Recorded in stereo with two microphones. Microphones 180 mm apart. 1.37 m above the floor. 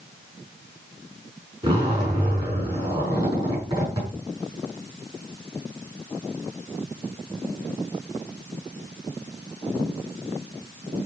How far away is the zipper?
About 5.5 m.